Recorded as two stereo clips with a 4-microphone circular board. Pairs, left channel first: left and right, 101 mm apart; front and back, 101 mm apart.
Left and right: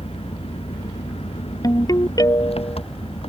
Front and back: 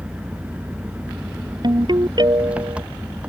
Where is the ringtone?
140° left.